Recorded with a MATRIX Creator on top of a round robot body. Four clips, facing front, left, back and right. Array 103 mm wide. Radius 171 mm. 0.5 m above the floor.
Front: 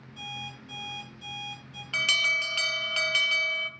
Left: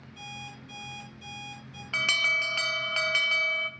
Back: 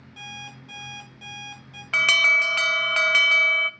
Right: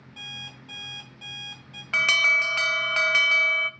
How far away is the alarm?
About 0.7 m.